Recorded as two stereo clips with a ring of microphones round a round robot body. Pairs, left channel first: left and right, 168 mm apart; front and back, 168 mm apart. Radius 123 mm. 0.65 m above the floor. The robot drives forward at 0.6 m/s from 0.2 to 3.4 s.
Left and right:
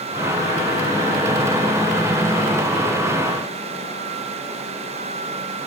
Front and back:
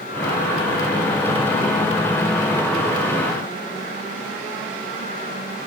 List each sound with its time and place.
Only background noise.